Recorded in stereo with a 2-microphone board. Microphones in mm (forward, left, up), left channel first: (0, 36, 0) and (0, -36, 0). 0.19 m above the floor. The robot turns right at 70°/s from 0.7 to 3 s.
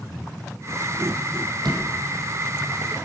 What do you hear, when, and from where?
1.6 s a door slam: 80° right, 6 m; by 1.9 s 75° right (ahead or behind), 6 m